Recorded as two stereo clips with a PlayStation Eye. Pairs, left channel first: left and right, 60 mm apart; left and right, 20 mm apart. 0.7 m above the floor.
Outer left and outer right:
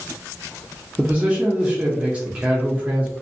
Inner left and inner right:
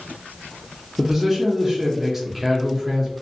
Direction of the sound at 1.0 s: 20° right (ahead or behind).